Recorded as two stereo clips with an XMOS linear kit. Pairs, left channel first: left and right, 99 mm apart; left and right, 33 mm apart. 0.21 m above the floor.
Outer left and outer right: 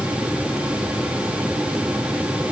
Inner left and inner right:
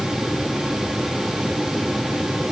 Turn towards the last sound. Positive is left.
No sound to turn to.